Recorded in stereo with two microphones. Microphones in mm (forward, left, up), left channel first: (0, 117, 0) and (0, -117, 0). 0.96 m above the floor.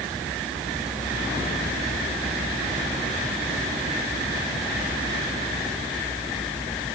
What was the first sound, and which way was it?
Only background noise.